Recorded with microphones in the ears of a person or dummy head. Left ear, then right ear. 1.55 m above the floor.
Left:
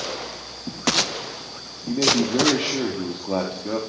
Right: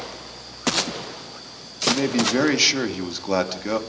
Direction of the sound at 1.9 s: 60° right (ahead or behind).